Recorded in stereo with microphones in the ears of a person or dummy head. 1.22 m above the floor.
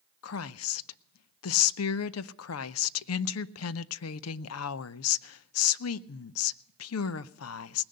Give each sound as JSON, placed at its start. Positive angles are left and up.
{"t": 0.2, "sound": "a woman speaking", "side_deg": 80, "distance_m": 0.5}